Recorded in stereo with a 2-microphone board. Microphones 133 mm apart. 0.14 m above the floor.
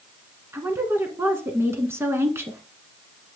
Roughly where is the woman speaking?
Centre.